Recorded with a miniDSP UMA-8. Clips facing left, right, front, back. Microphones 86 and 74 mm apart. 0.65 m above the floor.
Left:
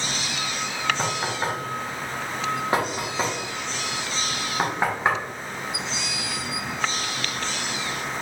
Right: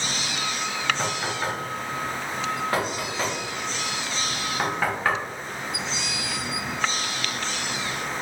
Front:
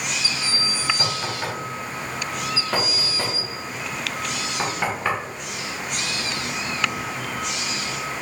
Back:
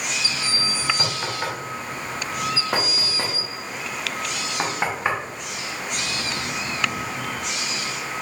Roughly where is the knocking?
Behind left.